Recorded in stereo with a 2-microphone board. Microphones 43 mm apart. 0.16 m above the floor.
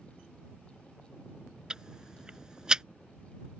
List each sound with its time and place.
1.7 s ticking: 20° right (ahead or behind)